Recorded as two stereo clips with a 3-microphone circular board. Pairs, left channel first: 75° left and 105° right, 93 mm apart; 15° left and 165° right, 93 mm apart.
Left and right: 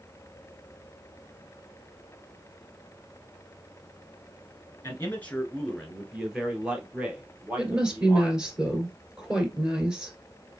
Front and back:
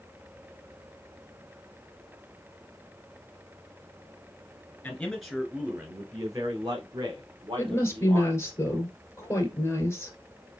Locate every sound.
4.8 s a man speaking: 65° left, 1.1 m; by 8.4 s 175° right, 2.5 m
7.6 s a woman speaking: 30° right, 1.9 m